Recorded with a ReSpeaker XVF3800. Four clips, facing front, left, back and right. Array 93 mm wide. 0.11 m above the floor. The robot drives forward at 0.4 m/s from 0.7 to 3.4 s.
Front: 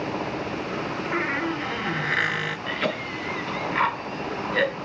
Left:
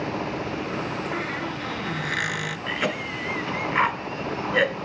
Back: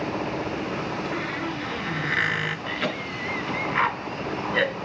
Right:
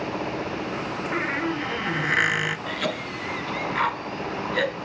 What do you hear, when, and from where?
1.1 s a squeak: 35° right, 0.8 m; by 2.6 s 110° right, 0.7 m
2.7 s a cough: 80° left, 1.1 m; by 4.8 s 120° left, 1.1 m